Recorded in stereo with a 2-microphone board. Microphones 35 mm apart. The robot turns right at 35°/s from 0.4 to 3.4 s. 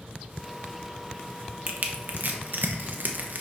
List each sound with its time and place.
1.7 s crushing: 45° right (ahead or behind), 1.1 m; by 3.4 s 55° right (ahead or behind), 1.1 m